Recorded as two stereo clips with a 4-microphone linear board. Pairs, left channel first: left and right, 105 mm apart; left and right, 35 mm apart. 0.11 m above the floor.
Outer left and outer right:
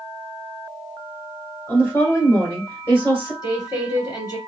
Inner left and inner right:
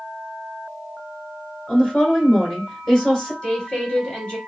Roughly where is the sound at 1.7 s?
Left.